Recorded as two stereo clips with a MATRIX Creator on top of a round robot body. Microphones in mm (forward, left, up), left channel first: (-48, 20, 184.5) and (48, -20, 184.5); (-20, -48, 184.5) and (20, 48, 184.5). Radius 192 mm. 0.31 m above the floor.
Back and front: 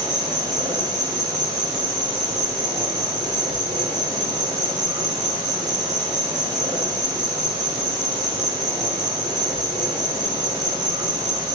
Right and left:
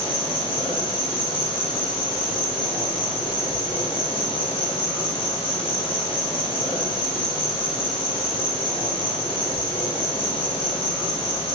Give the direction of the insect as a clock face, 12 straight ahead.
3 o'clock.